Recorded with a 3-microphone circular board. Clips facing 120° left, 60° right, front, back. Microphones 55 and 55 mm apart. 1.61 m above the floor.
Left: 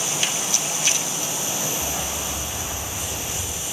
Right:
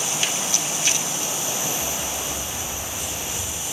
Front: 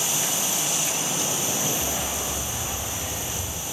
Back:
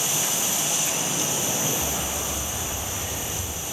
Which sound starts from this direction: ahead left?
A dog barking, at 1.8 s.